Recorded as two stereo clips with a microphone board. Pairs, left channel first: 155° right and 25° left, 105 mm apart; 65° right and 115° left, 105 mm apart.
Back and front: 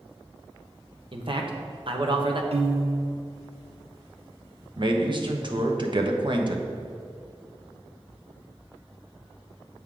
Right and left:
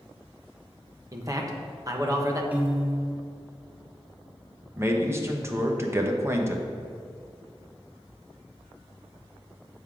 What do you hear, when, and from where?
1.1 s a man speaking: 55° left, 1.0 m
2.5 s a piano: 40° left, 0.9 m
4.8 s a man speaking: 50° left, 0.9 m